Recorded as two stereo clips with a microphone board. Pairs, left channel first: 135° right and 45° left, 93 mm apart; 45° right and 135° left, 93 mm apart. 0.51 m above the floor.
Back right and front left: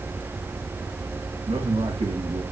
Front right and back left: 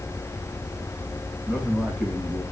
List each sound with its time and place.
1.5 s a man speaking: 45° left, 4 m